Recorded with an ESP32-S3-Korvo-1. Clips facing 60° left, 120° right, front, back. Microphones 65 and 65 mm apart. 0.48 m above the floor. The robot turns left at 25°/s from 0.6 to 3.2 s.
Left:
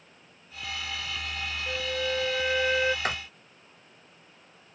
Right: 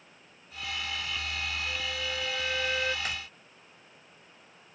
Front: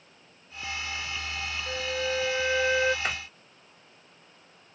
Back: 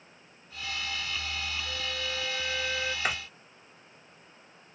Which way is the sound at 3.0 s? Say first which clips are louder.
Left 6 dB, back 1 dB; 100° left.